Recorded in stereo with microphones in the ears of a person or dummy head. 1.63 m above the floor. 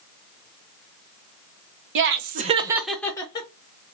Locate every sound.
1.9 s laughter: 65° right (ahead or behind), 0.9 m; by 3.5 s 30° left (ahead or behind), 1.0 m